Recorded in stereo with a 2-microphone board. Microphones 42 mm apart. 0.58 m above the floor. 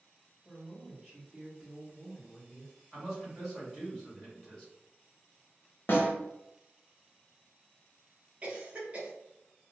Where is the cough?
35° right (ahead or behind), 0.7 m.